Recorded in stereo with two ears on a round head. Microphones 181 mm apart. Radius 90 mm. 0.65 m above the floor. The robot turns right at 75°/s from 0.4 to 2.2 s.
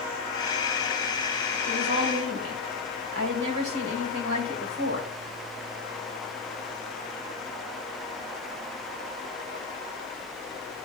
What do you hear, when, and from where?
1.7 s a woman speaking: 115° right, 3 m; by 5.1 s 75° right, 3 m